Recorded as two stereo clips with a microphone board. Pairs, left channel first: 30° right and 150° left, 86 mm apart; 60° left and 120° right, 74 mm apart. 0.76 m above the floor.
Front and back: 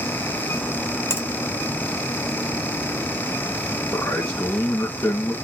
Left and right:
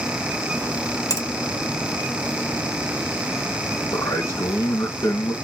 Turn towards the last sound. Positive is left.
turn(degrees=30)